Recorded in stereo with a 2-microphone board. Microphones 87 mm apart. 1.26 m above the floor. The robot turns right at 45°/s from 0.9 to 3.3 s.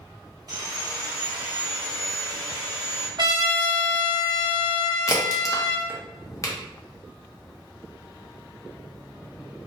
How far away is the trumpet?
About 0.8 m.